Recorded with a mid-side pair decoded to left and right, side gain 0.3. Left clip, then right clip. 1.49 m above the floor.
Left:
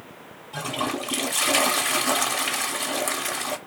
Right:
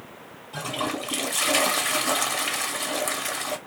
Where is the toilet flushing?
15° left, 0.7 m.